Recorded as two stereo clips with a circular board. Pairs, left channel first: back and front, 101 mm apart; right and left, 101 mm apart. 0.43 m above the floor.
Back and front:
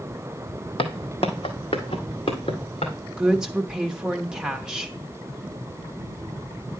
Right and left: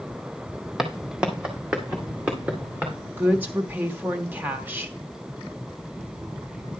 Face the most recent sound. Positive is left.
turn(degrees=70)